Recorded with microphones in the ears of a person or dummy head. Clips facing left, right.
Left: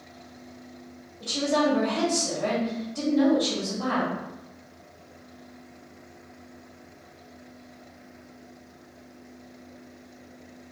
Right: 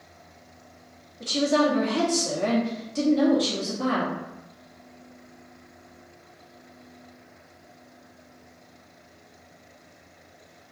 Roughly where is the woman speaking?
Right.